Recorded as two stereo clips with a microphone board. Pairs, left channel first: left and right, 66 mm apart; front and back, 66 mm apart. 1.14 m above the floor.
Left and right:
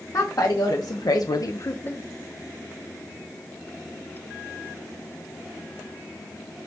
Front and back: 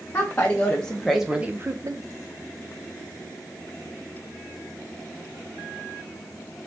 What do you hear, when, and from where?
0.1 s a woman speaking: 60° left, 1.0 m; by 2.0 s 155° left, 0.5 m